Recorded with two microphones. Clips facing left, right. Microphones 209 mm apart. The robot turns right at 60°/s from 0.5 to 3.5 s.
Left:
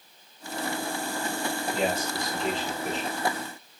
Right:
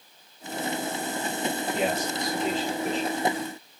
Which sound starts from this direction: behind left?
A man speaking, at 1.7 s.